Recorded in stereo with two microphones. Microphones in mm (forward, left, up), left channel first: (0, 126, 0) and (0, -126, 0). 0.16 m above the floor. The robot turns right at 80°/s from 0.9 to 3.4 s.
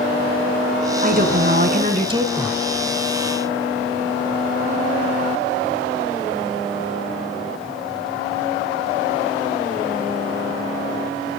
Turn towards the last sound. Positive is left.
turn(degrees=70)